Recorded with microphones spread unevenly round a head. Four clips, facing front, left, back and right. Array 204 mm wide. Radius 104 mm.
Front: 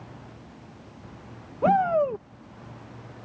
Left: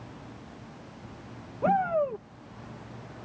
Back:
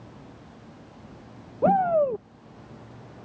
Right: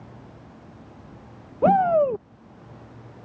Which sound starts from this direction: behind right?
A shout, at 1.6 s.